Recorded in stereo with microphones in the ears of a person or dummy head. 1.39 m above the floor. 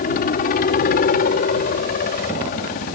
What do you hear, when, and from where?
0.0 s a helicopter: 45° left (ahead or behind)